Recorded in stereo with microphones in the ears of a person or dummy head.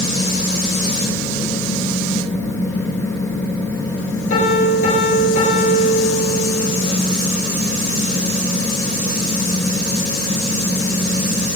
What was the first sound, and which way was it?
A piano, 50° left (ahead or behind).